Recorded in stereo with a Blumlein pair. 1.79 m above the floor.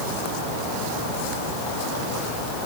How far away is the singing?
No singing in this recording.